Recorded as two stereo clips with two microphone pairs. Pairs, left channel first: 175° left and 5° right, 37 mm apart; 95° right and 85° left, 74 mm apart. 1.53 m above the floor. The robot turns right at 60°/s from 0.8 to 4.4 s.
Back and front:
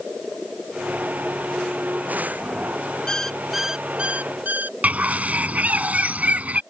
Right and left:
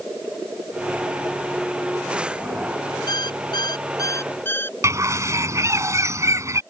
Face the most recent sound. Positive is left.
turn(degrees=35)